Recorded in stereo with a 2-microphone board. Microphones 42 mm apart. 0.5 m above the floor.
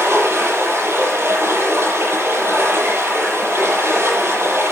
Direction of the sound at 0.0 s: 75° right (ahead or behind).